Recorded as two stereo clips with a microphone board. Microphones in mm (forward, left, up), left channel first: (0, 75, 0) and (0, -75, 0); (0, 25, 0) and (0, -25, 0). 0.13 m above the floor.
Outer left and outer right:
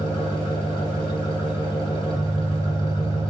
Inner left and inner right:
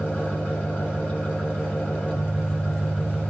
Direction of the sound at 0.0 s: 35° left (ahead or behind).